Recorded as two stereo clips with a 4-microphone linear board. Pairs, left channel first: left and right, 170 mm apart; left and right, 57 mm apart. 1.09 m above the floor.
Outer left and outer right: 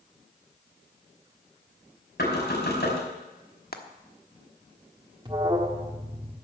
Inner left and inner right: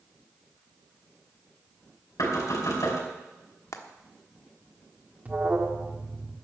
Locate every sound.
2.2 s knocking: 75° left (ahead or behind), 4.5 m
3.7 s frying: 65° left (ahead or behind), 1.2 m
5.2 s an alarm: 30° right (ahead or behind), 1.5 m